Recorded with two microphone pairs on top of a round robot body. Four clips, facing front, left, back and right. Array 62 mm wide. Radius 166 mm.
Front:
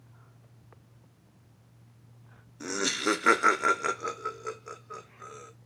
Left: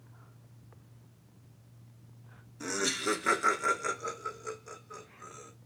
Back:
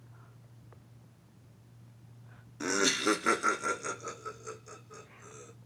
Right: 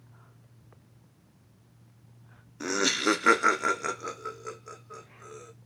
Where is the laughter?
145° right, 1.3 m; by 5.5 s 5° right, 4 m.